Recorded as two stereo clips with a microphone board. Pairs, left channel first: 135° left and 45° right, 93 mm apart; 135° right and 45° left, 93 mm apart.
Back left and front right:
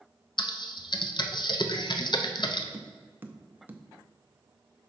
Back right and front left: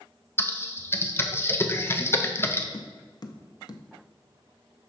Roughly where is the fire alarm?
I don't hear a fire alarm.